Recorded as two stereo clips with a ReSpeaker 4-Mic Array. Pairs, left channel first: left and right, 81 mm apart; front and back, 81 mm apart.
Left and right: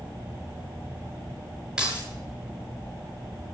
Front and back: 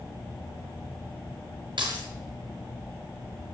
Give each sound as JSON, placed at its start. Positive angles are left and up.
{"t": 1.8, "sound": "keys jangling", "azimuth_deg": -170, "distance_m": 6.5}